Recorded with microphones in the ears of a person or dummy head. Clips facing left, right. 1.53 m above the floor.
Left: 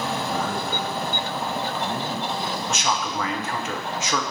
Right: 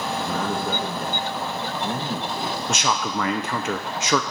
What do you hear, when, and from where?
0.2 s a man speaking: 45° right (ahead or behind), 1.3 m
2.7 s a man speaking: 60° right (ahead or behind), 0.6 m